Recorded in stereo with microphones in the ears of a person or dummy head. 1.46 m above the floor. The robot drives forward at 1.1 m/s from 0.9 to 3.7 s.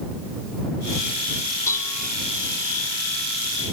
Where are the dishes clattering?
15° left (ahead or behind).